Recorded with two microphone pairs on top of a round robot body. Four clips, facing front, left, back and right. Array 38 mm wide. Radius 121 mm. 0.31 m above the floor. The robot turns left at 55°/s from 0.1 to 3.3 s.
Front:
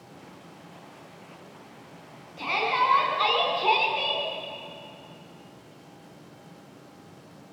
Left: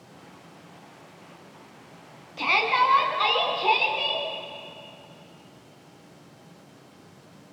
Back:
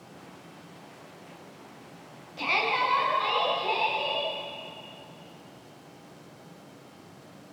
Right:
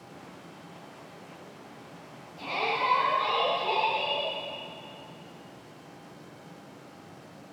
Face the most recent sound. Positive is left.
turn(degrees=45)